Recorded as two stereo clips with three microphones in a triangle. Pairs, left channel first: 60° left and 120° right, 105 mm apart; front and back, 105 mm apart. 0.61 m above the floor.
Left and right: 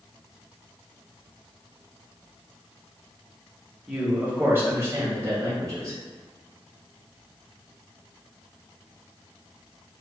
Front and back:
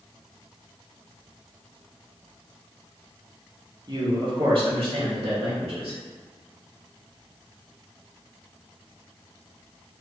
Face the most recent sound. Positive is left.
turn(degrees=-175)